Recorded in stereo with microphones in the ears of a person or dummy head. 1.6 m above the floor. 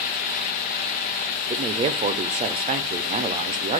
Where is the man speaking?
30° right (ahead or behind), 0.5 m.